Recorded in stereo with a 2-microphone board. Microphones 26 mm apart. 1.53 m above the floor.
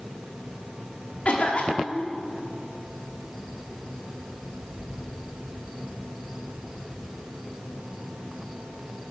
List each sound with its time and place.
1.2 s a cough: 60° left (ahead or behind), 5 m